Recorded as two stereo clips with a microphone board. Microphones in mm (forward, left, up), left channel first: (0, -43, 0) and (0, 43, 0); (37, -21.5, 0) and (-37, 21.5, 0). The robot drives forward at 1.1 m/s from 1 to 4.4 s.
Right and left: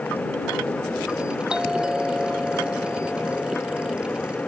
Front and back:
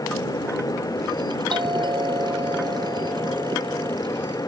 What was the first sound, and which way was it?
A doorbell, 170° left.